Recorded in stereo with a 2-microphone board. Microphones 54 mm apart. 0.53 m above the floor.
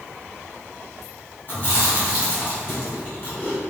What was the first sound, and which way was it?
Chewing, 30° left (ahead or behind).